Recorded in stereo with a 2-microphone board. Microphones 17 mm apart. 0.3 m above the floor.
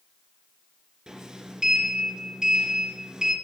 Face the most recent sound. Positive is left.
turn(degrees=-45)  # may be behind; listen again after turning